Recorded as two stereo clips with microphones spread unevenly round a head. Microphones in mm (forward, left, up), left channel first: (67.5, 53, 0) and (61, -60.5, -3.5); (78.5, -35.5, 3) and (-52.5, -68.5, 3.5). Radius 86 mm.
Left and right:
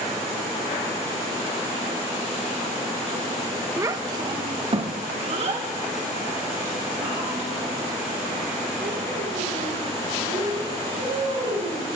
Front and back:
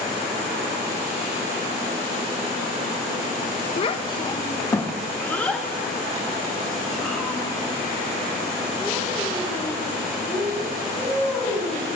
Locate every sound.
3.8 s a child speaking: 25° right, 0.7 m; by 11.8 s 85° right, 5 m